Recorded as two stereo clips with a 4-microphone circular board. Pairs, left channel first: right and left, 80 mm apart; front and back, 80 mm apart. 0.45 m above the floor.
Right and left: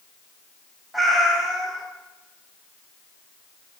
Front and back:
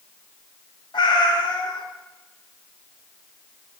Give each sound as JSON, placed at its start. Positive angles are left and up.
{"t": 0.9, "sound": "a cat meowing", "azimuth_deg": 0, "distance_m": 0.5}